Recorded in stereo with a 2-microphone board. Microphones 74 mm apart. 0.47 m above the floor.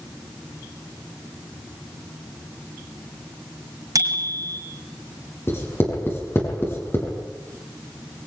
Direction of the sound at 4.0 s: 50° right (ahead or behind).